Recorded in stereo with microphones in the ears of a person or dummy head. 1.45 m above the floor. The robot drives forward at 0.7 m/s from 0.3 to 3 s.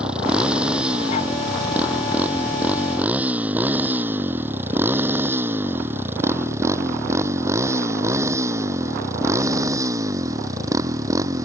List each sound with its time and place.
0.0 s a motorcycle: 5° right (ahead or behind); by 11.5 s 15° right (ahead or behind)